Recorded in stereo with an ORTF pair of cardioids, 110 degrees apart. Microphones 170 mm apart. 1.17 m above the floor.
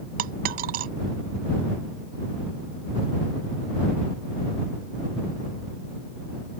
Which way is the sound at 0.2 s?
65° right.